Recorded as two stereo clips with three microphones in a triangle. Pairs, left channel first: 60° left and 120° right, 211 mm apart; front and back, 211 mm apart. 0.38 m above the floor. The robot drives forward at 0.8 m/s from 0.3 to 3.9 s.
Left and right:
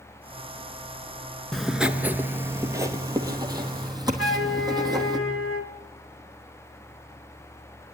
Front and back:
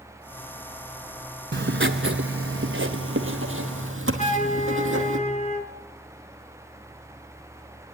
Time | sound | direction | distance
1.5 | writing | 150° left | 0.9 m
4.2 | a flute | 55° left | 1.6 m